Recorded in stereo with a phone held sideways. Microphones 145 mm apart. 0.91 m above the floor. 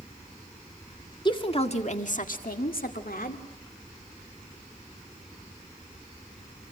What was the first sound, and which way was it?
A woman speaking, 30° left (ahead or behind).